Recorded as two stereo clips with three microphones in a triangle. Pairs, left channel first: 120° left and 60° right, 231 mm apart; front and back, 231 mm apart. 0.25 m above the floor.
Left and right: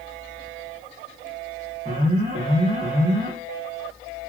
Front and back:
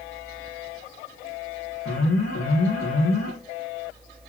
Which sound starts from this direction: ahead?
An alarm, at 1.9 s.